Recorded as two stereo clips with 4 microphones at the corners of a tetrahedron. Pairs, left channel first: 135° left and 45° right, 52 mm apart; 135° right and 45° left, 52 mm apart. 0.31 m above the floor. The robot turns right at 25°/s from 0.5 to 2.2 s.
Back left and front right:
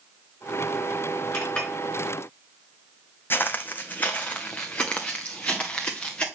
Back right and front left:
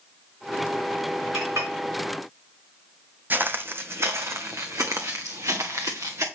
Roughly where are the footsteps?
Left.